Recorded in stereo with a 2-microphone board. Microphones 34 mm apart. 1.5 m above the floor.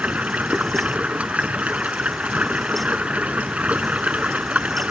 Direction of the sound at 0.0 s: 40° right (ahead or behind).